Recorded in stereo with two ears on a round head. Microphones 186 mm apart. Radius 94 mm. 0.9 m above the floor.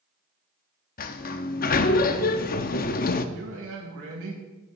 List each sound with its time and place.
1.0 s a sliding door: 45° left (ahead or behind), 0.6 m
3.4 s a man speaking: 85° right, 4.5 m